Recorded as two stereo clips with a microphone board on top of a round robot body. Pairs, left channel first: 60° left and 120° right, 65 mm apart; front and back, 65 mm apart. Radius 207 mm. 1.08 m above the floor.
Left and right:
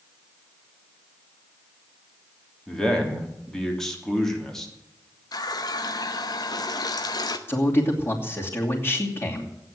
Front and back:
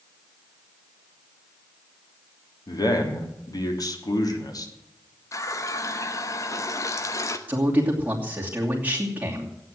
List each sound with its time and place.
2.7 s a man speaking: 20° right, 3 m
5.3 s a running tap: 45° left, 1.1 m
7.5 s a man speaking: 115° left, 3 m